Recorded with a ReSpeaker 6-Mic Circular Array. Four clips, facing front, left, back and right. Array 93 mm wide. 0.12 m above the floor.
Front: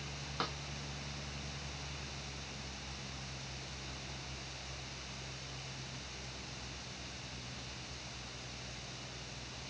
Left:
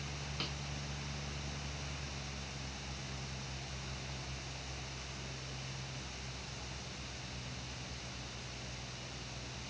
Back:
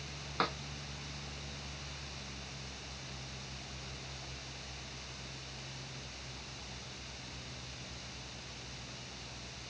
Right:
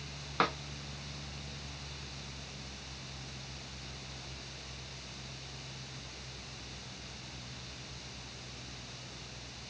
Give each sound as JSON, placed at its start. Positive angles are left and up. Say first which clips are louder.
{"t": 0.4, "sound": "a snare drum", "louder": "right 16 dB, back 6 dB", "azimuth_deg": -105}